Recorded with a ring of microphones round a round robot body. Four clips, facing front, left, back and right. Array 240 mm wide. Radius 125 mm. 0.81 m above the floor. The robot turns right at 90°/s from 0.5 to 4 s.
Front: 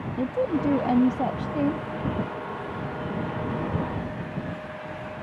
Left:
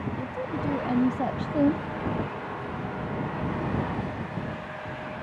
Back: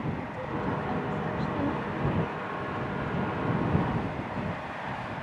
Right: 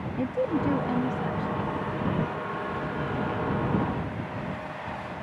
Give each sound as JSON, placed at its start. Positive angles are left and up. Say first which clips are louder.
{"t": 0.2, "sound": "a woman speaking", "louder": "right 5 dB, front 9 dB", "azimuth_deg": -35}